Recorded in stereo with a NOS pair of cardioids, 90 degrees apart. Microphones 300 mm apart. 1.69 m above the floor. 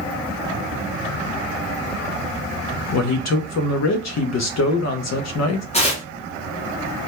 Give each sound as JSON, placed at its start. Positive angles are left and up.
{"t": 2.9, "sound": "a man speaking", "azimuth_deg": 60, "distance_m": 0.6}
{"t": 5.7, "sound": "tearing paper", "azimuth_deg": 20, "distance_m": 0.9}